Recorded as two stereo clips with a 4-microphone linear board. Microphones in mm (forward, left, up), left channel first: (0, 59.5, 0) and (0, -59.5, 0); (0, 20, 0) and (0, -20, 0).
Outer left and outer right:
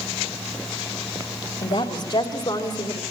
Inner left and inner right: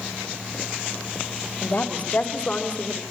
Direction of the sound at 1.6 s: 60° left (ahead or behind).